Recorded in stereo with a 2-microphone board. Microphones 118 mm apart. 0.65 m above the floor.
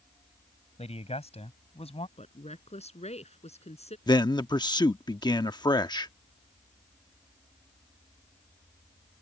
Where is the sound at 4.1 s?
40° left (ahead or behind).